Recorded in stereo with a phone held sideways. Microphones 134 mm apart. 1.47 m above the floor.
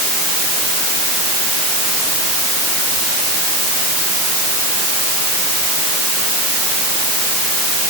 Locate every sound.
Only background noise.